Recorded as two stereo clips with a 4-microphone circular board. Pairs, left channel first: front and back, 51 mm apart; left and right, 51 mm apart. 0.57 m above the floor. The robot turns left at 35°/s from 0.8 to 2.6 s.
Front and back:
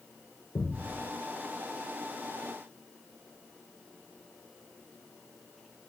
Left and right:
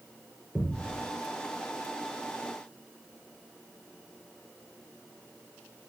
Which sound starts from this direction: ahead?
A thud, at 0.6 s.